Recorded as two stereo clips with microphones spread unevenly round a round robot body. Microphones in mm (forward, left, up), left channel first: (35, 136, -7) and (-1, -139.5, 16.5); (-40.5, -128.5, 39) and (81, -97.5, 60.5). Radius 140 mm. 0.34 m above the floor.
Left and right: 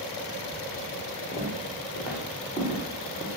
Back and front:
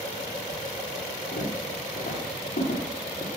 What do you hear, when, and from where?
1.3 s footsteps: 175° left, 10 m